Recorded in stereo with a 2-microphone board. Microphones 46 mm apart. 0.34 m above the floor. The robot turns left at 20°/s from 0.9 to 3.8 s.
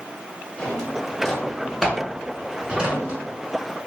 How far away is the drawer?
About 0.9 m.